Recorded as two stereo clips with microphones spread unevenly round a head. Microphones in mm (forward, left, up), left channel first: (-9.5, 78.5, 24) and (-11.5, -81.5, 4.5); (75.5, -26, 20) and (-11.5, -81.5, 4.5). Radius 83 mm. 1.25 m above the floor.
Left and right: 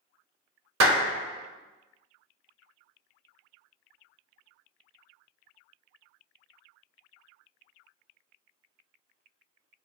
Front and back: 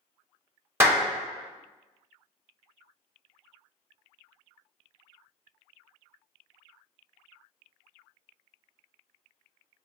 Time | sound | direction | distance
0.8 | a clap | 75° right | 0.9 m